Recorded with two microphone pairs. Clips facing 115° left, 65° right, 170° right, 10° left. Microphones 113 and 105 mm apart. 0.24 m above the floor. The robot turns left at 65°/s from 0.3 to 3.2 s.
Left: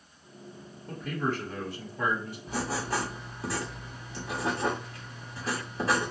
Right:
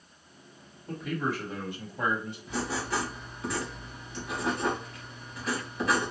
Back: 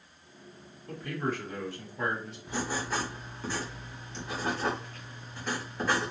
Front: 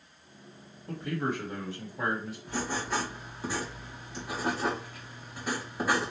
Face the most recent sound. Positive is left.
turn(degrees=85)